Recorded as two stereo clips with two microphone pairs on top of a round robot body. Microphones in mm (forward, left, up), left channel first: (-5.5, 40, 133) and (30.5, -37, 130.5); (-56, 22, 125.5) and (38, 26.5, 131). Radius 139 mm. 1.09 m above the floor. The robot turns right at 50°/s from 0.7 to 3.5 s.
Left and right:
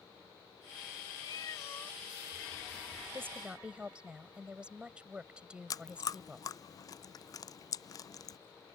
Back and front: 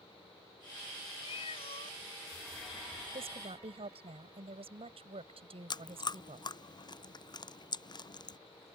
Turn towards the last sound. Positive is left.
turn(degrees=150)